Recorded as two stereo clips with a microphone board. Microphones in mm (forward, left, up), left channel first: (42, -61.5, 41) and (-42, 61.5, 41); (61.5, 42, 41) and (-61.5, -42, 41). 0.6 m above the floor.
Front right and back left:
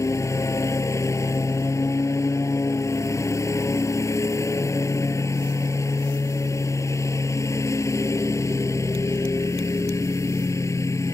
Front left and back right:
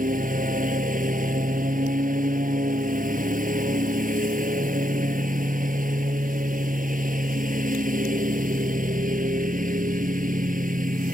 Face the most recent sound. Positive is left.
turn(degrees=-125)